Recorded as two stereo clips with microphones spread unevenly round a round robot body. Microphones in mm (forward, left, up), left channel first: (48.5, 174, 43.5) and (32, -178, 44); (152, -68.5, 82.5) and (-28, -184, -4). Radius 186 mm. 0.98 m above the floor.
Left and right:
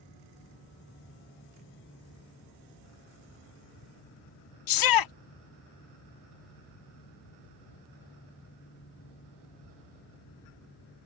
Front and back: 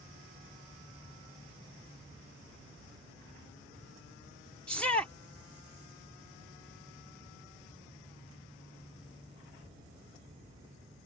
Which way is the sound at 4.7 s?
120° left.